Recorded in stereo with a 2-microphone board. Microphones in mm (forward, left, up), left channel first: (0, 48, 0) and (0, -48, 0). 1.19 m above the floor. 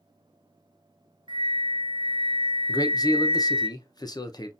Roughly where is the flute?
Right.